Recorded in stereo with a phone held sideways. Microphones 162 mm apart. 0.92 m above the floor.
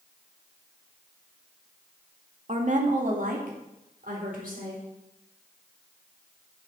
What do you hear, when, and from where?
2.5 s a woman speaking: 50° right (ahead or behind), 1.9 m; by 4.8 s 70° right (ahead or behind), 4.5 m